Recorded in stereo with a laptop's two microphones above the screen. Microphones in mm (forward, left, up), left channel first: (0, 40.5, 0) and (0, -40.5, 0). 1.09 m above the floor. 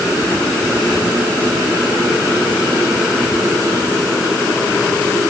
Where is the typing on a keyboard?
No typing on a keyboard in this recording.